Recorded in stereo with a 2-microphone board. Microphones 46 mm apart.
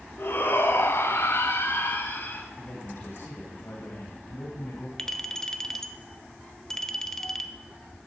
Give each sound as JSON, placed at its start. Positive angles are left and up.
{"t": 0.2, "sound": "a shout", "side_deg": 50, "distance_m": 2.5}
{"t": 2.6, "sound": "a man speaking", "side_deg": 60, "distance_m": 3.0}
{"t": 5.0, "sound": "a clink", "side_deg": 10, "distance_m": 0.9}